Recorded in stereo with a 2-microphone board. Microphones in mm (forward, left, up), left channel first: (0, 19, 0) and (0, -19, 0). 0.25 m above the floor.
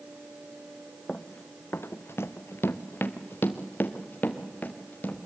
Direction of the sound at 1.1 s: 35° left (ahead or behind).